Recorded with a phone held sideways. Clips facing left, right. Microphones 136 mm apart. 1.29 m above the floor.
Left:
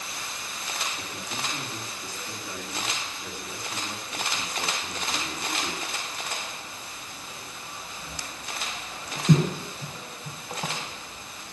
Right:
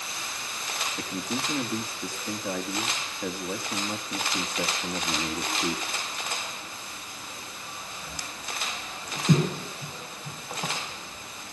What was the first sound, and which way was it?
A man speaking, 75° right (ahead or behind).